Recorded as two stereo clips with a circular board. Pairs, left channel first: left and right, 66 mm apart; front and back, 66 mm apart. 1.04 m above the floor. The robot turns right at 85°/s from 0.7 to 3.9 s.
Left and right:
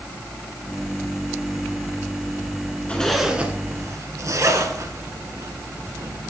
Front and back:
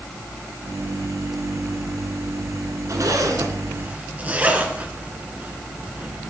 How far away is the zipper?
About 1.8 m.